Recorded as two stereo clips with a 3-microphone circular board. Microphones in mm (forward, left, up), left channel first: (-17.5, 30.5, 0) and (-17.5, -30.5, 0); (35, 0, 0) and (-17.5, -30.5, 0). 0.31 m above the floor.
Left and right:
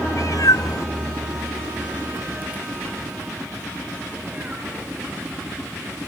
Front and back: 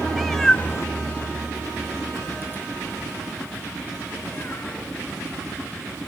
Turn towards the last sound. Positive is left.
turn(degrees=-35)